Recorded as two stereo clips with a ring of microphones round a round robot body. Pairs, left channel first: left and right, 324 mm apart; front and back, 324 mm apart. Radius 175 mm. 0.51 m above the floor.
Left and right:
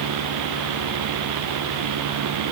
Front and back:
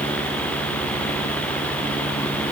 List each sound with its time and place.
Only background noise.